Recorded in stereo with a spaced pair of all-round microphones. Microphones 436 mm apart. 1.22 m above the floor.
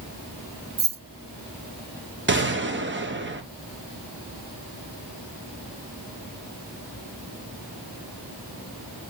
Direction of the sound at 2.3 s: 25° right (ahead or behind).